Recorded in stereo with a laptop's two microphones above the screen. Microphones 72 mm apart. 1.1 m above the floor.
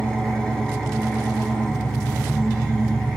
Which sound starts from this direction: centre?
An engine running, at 0.0 s.